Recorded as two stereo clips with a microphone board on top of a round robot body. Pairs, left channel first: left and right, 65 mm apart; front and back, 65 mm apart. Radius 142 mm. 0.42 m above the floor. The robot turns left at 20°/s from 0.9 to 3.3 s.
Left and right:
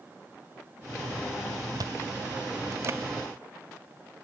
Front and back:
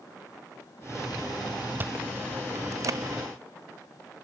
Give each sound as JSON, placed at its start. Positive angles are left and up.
{"t": 1.8, "sound": "chewing", "azimuth_deg": -120, "distance_m": 0.8}